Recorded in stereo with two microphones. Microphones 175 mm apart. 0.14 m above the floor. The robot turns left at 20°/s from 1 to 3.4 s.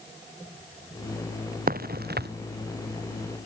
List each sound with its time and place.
1.7 s a crack: 55° right (ahead or behind); by 2.3 s 70° right (ahead or behind)